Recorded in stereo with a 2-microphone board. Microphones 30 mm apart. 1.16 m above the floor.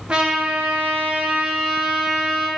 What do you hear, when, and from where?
0.1 s a trumpet: 35° right (ahead or behind), 0.6 m